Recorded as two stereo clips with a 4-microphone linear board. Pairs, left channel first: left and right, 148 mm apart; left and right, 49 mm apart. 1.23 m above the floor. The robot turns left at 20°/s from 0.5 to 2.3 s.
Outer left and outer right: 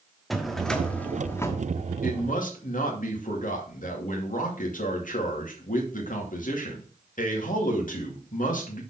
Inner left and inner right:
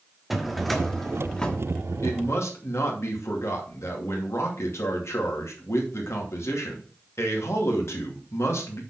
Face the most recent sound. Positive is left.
turn(degrees=65)  # may be behind; listen again after turning